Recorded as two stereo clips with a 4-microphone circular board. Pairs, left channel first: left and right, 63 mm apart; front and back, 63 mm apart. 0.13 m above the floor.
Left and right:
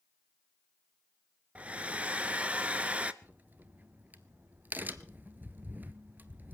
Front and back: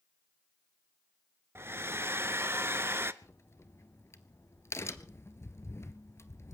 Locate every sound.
1.6 s a hair dryer: 150° right, 0.6 m
3.2 s a crack: 35° right, 0.7 m